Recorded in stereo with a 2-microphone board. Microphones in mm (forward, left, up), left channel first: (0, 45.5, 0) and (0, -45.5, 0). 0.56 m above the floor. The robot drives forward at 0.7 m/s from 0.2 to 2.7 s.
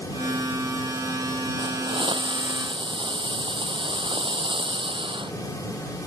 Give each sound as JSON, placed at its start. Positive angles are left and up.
{"t": 1.6, "sound": "a hiss", "side_deg": -70}